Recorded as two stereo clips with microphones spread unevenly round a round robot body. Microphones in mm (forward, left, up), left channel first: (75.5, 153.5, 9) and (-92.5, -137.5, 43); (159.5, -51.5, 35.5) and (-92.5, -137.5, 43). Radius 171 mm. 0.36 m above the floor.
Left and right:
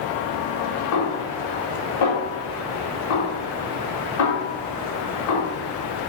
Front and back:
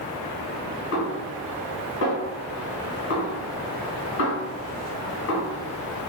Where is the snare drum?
35° left, 1.5 m.